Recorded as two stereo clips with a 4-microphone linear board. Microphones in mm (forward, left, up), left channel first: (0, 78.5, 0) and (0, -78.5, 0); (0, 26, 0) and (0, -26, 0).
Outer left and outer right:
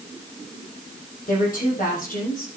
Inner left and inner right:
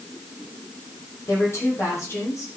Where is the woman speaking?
60° left (ahead or behind), 7 m.